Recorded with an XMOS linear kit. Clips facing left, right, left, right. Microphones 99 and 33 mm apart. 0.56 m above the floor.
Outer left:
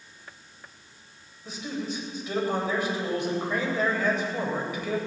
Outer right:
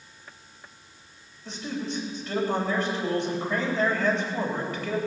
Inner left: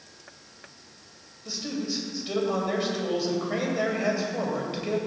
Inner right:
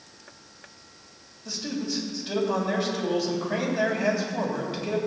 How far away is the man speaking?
About 3 m.